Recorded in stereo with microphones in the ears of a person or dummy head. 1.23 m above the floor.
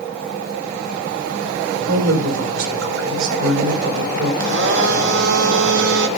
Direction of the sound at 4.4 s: 70° right (ahead or behind).